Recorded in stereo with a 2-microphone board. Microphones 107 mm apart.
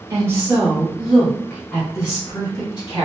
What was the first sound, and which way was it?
A woman speaking, 25° right (ahead or behind).